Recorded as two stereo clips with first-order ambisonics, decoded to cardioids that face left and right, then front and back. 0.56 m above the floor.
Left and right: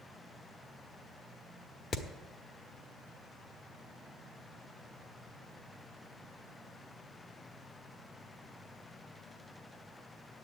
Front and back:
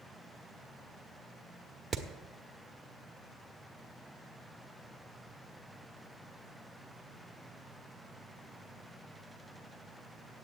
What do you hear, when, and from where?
1.9 s hammering: 120° left, 0.9 m